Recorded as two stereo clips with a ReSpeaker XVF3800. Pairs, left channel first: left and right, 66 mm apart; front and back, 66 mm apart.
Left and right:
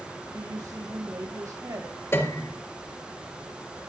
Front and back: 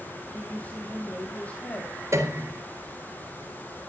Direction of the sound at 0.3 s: 65° right.